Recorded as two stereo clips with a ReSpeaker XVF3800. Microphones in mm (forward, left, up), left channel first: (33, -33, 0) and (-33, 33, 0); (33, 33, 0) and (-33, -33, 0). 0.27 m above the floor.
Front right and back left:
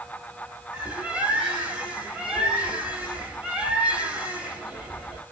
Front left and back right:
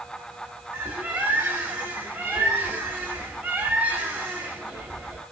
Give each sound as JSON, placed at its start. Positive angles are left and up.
{"t": 0.7, "sound": "a bird", "azimuth_deg": -175, "distance_m": 1.4}